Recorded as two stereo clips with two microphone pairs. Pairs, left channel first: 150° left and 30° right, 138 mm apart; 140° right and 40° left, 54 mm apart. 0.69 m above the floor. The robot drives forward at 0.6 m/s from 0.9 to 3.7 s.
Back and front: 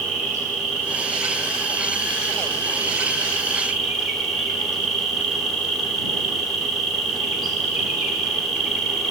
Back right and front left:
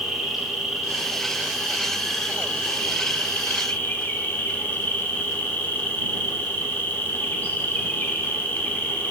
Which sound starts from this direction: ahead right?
An insect, at 0.0 s.